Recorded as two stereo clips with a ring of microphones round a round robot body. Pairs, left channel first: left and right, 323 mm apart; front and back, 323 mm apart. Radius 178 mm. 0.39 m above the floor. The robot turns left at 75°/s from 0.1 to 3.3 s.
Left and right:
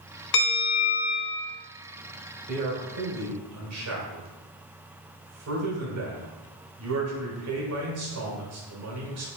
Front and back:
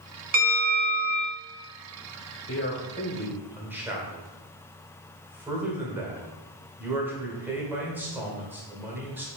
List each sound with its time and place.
0.3 s a bell: 110° left, 1.5 m; by 1.4 s 30° left, 1.5 m
2.5 s a man speaking: 35° right, 1.5 m; by 9.3 s 95° right, 1.5 m